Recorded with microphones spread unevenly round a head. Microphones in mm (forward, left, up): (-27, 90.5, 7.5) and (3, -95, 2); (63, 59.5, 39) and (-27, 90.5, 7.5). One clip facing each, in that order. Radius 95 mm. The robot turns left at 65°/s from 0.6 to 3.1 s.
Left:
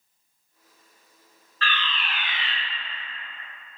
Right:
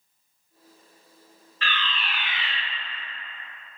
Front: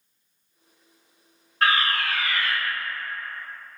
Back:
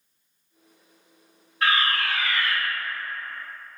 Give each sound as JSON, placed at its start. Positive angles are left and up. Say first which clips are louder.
{"t": 1.6, "sound": "a fire alarm", "louder": "left 1 dB, front 1 dB", "azimuth_deg": -25, "distance_m": 0.9}